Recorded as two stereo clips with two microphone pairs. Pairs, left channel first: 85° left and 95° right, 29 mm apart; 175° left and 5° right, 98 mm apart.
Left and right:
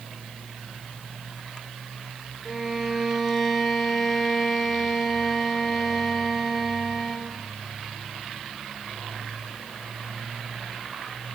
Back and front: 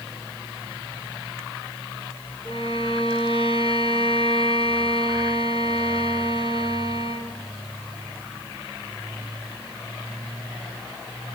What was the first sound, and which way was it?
A violin, 175° right.